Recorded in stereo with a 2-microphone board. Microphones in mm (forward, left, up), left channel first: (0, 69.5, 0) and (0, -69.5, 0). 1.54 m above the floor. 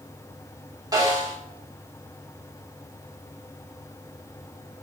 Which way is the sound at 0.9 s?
30° right (ahead or behind).